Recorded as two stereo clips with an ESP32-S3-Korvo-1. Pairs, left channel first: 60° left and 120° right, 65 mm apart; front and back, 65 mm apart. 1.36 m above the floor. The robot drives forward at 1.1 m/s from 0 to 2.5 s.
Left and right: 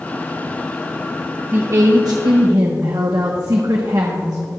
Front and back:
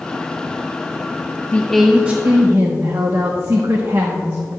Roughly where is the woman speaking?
Ahead right.